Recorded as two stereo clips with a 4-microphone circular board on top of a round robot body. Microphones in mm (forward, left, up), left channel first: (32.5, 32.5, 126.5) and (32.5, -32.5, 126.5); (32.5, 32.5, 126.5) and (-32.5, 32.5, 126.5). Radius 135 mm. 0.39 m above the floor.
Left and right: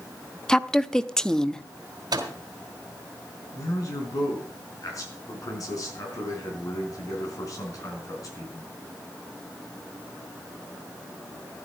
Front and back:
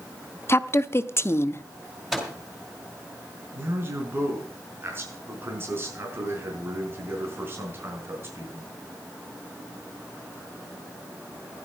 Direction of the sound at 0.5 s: 15° left.